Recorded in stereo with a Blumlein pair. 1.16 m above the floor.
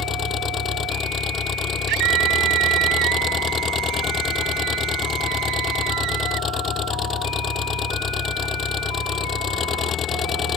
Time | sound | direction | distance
0.0 | an engine running | 25° left | ?
1.9 | a scream | 40° right | ?